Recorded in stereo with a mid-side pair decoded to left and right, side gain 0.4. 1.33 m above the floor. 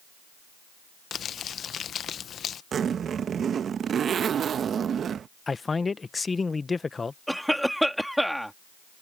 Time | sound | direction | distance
1.1 | crumpling | 60° left | ?
2.7 | a zipper | 60° right | ?
5.5 | a man speaking | 35° left | ?
7.3 | a cough | straight ahead | ?